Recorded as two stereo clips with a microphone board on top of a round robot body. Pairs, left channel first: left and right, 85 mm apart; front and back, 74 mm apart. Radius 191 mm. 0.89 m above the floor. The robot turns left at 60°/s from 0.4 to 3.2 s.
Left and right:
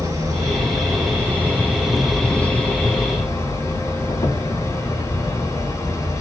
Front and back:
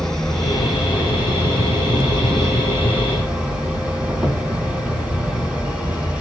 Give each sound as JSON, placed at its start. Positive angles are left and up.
{"t": 0.0, "sound": "an insect", "azimuth_deg": -75, "distance_m": 1.9}